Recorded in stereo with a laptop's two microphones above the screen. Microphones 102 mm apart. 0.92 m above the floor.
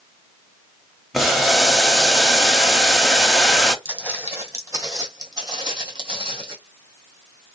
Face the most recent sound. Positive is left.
turn(degrees=-55)  # may be behind; listen again after turning